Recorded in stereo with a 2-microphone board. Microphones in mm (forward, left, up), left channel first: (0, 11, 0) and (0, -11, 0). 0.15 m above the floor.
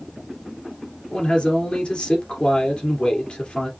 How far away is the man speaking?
About 2.5 m.